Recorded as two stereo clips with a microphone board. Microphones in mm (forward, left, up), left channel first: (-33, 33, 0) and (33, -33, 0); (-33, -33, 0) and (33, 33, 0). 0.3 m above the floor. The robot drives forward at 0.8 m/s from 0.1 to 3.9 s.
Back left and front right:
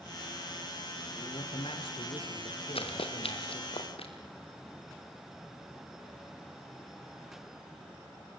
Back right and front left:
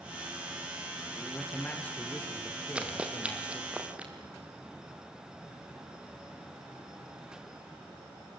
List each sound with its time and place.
1.1 s a man speaking: 145° left, 4 m; by 3.8 s 160° left, 6 m
2.8 s running footsteps: 125° left, 3 m